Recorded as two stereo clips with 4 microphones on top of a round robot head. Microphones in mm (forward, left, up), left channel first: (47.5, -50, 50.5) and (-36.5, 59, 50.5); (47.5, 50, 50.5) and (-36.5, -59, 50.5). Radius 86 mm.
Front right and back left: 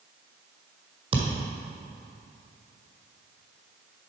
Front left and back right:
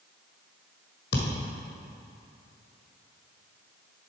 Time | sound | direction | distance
1.1 | a thud | 75° left | 1.4 m